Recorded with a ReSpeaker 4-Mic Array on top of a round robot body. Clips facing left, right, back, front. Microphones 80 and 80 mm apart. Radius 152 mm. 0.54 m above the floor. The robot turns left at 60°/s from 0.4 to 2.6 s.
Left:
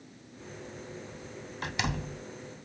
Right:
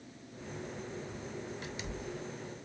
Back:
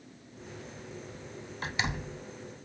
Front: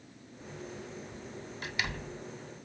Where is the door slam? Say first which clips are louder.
Left 7 dB, back 3 dB; 125° left; by 2.2 s 85° left.